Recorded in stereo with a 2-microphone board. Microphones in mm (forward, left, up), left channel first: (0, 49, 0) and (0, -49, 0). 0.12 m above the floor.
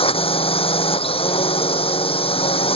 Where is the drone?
75° left (ahead or behind).